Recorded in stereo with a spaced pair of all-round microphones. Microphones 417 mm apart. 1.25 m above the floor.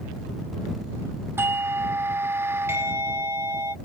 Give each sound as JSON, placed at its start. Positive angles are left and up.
{"t": 1.4, "sound": "a doorbell", "side_deg": -5}